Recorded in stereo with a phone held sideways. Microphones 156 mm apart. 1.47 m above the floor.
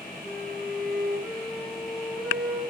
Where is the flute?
10° left (ahead or behind), 0.9 m.